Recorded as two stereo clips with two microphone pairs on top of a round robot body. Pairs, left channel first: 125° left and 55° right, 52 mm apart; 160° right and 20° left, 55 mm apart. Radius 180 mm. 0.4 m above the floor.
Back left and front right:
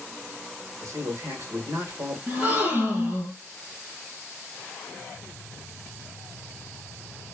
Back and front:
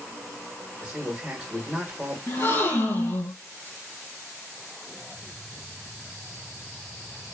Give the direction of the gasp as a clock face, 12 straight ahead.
4 o'clock.